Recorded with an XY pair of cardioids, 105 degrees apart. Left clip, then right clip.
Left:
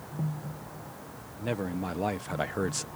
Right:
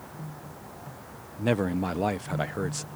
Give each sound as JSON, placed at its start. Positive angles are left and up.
{"t": 1.4, "sound": "a man speaking", "azimuth_deg": -50}